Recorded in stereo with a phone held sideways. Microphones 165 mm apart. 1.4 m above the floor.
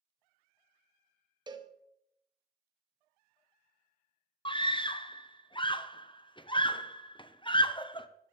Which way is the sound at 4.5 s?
30° left (ahead or behind).